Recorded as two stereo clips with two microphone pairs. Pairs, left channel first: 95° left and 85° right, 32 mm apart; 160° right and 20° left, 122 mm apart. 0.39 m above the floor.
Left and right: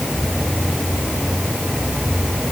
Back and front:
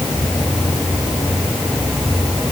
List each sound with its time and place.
Only background noise.